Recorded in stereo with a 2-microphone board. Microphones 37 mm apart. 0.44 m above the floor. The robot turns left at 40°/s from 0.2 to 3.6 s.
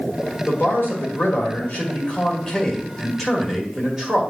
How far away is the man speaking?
About 1.8 m.